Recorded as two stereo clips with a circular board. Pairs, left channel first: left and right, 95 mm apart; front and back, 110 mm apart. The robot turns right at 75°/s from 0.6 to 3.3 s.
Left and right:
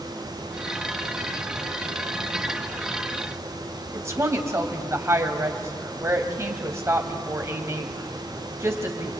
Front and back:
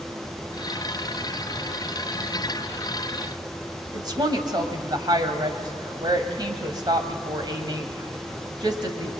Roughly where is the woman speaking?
Behind right.